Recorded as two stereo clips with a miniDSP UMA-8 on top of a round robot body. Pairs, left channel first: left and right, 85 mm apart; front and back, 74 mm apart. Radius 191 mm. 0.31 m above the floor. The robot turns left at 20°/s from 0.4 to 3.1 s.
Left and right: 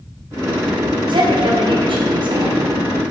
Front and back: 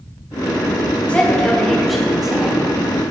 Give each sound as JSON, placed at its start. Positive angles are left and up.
{"t": 1.1, "sound": "a woman speaking", "azimuth_deg": -70, "distance_m": 4.0}